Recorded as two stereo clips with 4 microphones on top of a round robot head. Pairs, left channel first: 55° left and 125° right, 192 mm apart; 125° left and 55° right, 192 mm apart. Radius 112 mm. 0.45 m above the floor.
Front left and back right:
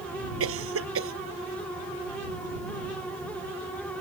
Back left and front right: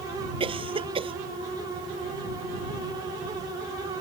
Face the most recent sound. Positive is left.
turn(degrees=-120)